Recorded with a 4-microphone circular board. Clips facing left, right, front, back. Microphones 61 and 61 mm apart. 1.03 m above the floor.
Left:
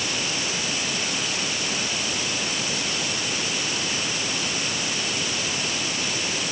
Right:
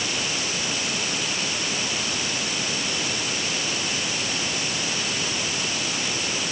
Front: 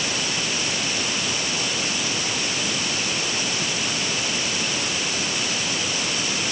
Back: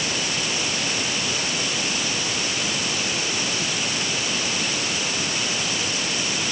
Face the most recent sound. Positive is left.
No sound to turn to.